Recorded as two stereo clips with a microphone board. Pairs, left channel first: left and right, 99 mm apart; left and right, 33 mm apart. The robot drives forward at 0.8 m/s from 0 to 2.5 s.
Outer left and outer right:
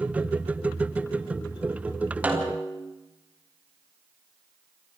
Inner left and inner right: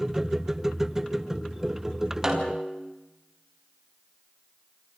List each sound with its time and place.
2.2 s a snare drum: 15° right (ahead or behind), 5 m